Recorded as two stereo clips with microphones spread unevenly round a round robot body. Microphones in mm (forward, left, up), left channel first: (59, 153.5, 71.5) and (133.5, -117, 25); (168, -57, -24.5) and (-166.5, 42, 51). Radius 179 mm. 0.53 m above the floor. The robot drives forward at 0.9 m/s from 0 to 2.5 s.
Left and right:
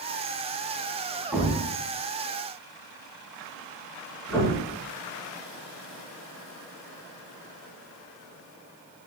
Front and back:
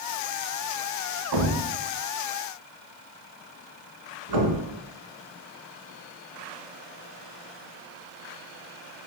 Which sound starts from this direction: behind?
A thud, at 1.3 s.